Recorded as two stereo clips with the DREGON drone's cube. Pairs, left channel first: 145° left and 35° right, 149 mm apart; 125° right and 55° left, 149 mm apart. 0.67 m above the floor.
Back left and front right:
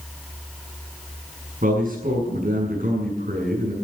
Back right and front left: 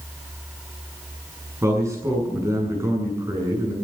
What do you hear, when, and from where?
1.6 s a man speaking: 15° right, 7 m